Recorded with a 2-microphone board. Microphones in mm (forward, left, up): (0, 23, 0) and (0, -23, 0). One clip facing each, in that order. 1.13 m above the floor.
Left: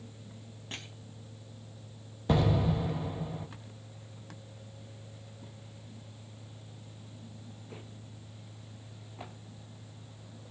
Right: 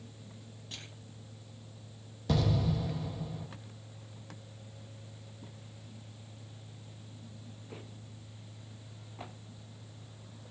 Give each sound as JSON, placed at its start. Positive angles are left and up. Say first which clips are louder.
{"t": 0.7, "sound": "crushing", "louder": "left 5 dB", "side_deg": 40, "distance_m": 3.5}
{"t": 2.3, "sound": "an explosion", "louder": "left 3 dB", "side_deg": 25, "distance_m": 1.5}